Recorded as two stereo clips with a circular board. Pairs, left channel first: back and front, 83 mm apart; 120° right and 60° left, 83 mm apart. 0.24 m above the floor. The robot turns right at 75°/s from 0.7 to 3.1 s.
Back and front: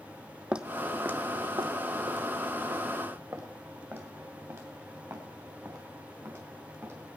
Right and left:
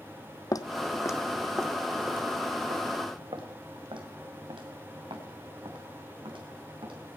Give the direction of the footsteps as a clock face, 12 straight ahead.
3 o'clock.